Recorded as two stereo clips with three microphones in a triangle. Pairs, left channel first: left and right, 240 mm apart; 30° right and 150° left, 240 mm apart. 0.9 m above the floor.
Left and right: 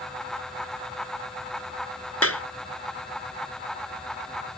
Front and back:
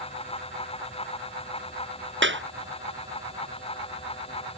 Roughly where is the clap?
Left.